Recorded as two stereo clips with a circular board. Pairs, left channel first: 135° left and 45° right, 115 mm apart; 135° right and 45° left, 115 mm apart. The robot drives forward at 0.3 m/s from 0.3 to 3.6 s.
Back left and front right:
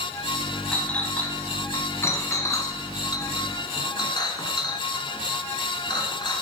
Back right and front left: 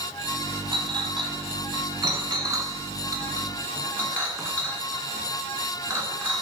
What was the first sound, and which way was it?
A clink, 55° left.